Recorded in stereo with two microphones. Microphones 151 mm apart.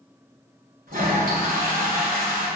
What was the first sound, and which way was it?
A toilet flushing, 80° right.